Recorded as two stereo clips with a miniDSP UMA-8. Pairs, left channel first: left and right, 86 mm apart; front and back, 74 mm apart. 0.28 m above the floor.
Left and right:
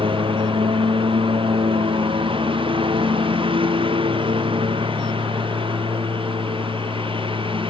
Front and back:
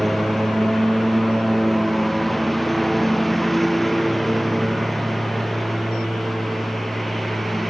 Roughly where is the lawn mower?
Right.